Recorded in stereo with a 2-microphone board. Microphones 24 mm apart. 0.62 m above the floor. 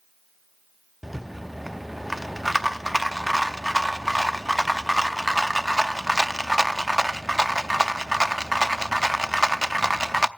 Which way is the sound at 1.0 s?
10° right (ahead or behind).